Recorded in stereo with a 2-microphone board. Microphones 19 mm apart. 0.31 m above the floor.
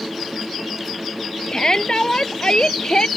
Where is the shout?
40° left (ahead or behind); by 3.1 s 50° left (ahead or behind).